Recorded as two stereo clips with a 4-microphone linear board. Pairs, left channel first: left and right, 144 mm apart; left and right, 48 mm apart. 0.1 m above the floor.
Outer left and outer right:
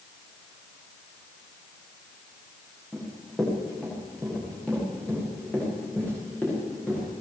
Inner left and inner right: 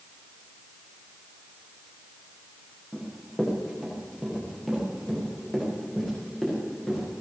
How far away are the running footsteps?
About 9 m.